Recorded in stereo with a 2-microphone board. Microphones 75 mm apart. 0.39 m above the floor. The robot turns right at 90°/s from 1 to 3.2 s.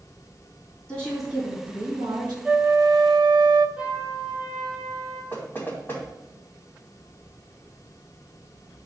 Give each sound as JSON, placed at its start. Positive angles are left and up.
{"t": 0.9, "sound": "a woman speaking", "azimuth_deg": 170, "distance_m": 3.5}
{"t": 2.5, "sound": "a flute", "azimuth_deg": -160, "distance_m": 0.6}
{"t": 3.8, "sound": "a trumpet", "side_deg": -15, "distance_m": 4.5}
{"t": 5.3, "sound": "knocking", "side_deg": 25, "distance_m": 2.5}